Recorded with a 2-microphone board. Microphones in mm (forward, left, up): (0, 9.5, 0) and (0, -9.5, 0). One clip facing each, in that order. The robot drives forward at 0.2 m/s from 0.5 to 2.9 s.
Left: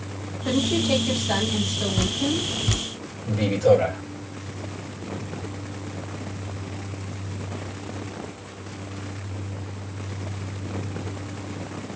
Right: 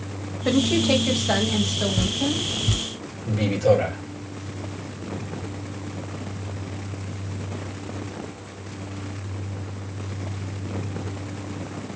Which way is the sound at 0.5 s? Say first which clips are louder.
Right 2 dB; 35° right (ahead or behind).